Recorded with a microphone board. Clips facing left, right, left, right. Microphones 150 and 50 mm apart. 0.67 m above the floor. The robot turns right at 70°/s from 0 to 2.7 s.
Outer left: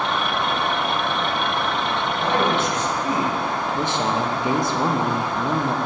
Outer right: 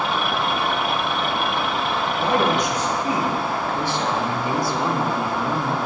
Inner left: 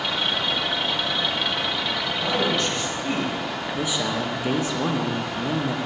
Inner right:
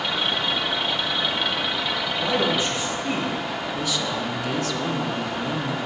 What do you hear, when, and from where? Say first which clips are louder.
2.2 s a man speaking: outer right 1 dB, inner right 1 dB; 50° right, 1.1 m; by 3.3 s 15° right, 1.1 m
3.7 s a man speaking: outer left 2 dB, inner left 3 dB; 20° left (ahead or behind), 0.6 m